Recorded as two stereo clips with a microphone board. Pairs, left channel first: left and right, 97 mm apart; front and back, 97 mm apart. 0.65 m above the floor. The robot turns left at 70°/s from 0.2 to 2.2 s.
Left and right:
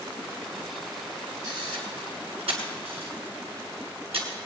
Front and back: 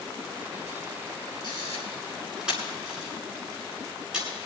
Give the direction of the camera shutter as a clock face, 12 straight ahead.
1 o'clock.